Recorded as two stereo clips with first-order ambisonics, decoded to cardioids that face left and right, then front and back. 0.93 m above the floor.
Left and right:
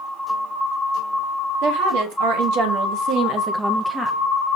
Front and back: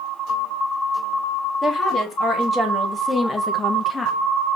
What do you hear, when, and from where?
1.6 s a woman speaking: 90° right, 1.8 m; by 4.2 s 60° left, 0.6 m